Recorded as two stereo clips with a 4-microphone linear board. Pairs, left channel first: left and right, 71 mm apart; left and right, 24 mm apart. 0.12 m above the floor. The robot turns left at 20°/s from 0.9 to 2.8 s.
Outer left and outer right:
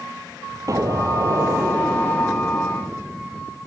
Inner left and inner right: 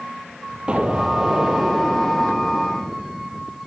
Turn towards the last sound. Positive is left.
turn(degrees=-160)